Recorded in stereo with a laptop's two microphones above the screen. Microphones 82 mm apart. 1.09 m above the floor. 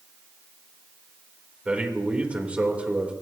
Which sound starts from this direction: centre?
A man speaking, at 1.6 s.